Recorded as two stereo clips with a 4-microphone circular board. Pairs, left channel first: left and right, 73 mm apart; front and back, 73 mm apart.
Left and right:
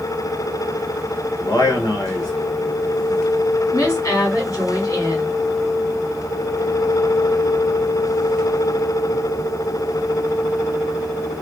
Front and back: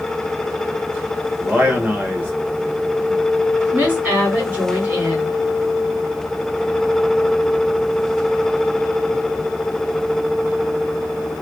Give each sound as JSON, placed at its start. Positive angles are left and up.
{"t": 1.4, "sound": "a man speaking", "azimuth_deg": 115, "distance_m": 1.3}
{"t": 3.7, "sound": "a woman speaking", "azimuth_deg": 120, "distance_m": 2.0}